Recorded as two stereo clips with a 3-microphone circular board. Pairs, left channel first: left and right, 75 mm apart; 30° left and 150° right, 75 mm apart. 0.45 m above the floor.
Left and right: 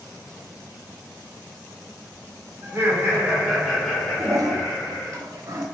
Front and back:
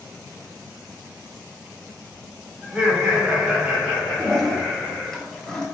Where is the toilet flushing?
55° right, 1.2 m.